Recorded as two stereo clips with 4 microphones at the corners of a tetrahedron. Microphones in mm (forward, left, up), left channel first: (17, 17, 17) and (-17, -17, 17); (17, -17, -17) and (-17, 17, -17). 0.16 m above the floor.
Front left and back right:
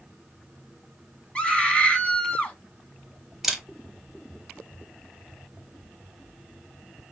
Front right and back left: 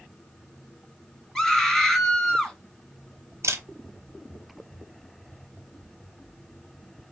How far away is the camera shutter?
About 0.9 m.